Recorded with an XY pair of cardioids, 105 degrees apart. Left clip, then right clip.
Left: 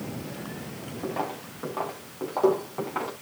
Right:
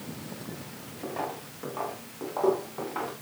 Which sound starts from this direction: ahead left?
Footsteps, at 1.0 s.